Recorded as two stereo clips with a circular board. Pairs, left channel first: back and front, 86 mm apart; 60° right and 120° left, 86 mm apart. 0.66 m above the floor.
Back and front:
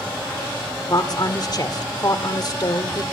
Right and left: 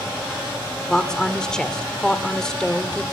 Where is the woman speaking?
140° right, 1.7 m.